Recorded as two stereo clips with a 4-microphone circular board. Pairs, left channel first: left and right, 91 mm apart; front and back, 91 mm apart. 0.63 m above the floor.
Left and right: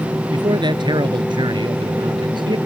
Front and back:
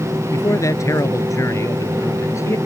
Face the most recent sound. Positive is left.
turn(degrees=-60)